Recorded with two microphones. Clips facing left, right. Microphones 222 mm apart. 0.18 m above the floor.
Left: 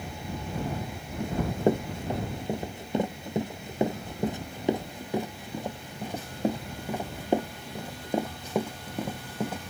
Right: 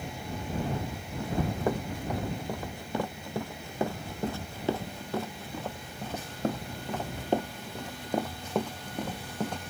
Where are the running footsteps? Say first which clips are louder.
Left 4 dB; 25° left (ahead or behind); by 9.6 s 5° left (ahead or behind).